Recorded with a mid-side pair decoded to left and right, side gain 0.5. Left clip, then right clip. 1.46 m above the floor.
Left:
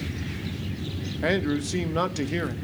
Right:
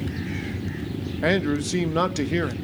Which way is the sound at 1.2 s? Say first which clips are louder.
Right 2 dB; 20° right.